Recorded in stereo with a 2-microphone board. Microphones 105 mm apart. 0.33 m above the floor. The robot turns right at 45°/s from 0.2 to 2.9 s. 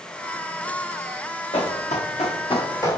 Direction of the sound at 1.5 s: 65° left (ahead or behind).